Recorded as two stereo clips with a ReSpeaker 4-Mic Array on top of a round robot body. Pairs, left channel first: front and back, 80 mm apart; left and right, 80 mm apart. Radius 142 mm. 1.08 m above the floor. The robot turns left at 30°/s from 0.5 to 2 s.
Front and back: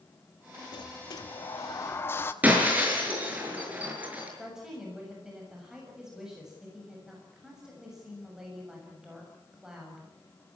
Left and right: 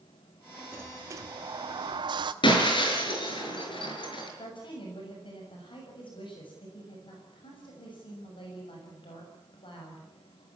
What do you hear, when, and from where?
0.7 s a sliding door: 25° right, 1.0 m; by 2.3 s 60° right, 1.0 m
2.4 s breaking glass: 110° left, 6 m
4.4 s a woman speaking: 95° left, 6.5 m